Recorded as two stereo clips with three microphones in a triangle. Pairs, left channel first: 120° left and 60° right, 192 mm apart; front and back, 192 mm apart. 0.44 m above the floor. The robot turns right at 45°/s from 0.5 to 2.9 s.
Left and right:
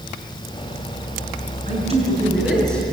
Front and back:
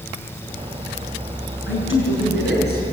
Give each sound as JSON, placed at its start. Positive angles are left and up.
{"t": 1.7, "sound": "a man speaking", "azimuth_deg": -15, "distance_m": 6.5}